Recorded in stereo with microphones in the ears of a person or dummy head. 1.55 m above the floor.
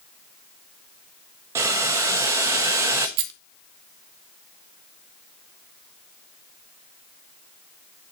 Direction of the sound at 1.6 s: 10° right (ahead or behind).